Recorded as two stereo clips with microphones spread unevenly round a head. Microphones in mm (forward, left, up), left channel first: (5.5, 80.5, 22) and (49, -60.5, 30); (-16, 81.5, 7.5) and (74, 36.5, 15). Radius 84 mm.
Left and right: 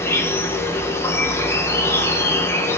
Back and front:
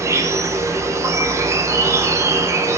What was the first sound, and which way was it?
An insect, 35° left.